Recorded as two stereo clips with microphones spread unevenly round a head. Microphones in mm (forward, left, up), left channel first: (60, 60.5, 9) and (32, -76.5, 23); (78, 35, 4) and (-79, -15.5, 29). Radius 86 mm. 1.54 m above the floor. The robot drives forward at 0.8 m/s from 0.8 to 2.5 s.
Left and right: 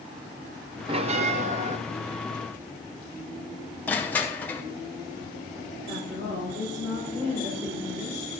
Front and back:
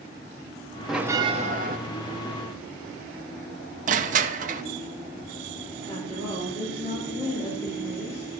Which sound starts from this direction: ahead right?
A woman speaking, at 5.9 s.